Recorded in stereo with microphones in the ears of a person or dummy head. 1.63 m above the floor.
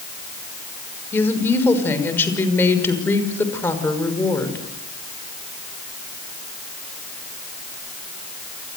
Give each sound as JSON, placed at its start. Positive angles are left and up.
{"t": 1.1, "sound": "a woman speaking", "side_deg": 15, "distance_m": 6.0}